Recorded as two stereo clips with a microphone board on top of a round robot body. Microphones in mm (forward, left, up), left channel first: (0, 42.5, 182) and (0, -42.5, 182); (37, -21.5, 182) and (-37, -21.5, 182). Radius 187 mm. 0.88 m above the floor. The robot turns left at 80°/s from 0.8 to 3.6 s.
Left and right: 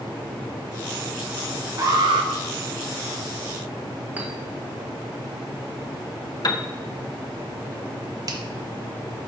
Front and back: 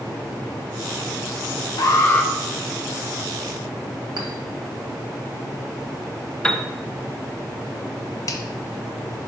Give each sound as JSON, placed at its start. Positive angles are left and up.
{"t": 1.8, "sound": "an alarm", "azimuth_deg": -35, "distance_m": 0.8}
{"t": 4.2, "sound": "a clink", "azimuth_deg": -160, "distance_m": 1.6}
{"t": 6.4, "sound": "a piano", "azimuth_deg": 70, "distance_m": 0.8}
{"t": 8.3, "sound": "a finger snap", "azimuth_deg": -45, "distance_m": 0.9}